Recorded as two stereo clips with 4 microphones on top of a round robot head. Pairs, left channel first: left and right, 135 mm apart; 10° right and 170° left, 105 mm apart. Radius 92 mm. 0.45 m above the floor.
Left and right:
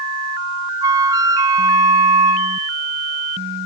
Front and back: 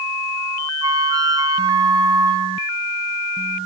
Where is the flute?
150° right, 0.9 m.